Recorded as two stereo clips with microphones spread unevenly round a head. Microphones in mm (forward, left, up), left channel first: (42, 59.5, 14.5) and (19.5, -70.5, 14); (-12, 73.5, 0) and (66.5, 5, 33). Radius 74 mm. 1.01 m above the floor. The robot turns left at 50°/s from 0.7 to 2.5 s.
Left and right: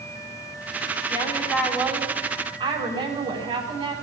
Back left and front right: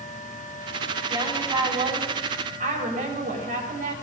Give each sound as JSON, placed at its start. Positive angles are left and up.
{"t": 1.1, "sound": "a woman speaking", "azimuth_deg": 20, "distance_m": 10.0}